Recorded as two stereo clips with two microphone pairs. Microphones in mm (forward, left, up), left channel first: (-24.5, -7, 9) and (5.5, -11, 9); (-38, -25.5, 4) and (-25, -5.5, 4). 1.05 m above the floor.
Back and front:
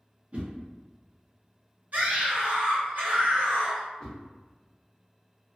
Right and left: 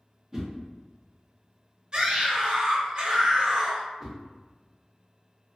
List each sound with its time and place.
0.3 s a whoosh: 15° right, 0.6 m
1.9 s a scream: straight ahead, 0.9 m
4.0 s a whoosh: 145° left, 0.7 m